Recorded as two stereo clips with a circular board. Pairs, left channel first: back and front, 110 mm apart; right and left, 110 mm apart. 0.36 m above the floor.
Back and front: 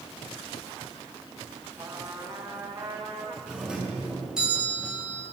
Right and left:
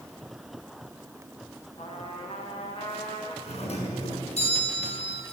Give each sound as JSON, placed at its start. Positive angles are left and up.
{"t": 1.8, "sound": "a trumpet", "azimuth_deg": -50, "distance_m": 4.0}
{"t": 3.5, "sound": "a doorbell", "azimuth_deg": -85, "distance_m": 6.0}